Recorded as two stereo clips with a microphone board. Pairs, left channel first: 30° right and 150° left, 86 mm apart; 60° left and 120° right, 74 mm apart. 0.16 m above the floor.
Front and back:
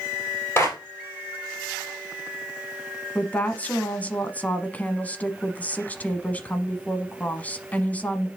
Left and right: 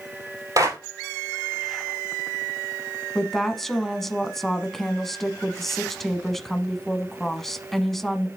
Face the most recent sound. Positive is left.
turn(degrees=-15)